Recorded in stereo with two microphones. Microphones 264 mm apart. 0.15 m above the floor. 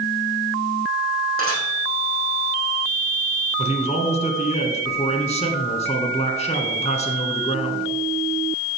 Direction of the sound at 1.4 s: 50° right (ahead or behind).